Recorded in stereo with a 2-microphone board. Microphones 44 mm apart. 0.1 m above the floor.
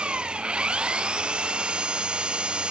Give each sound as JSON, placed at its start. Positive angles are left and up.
{"t": 0.0, "sound": "an engine running", "side_deg": -20}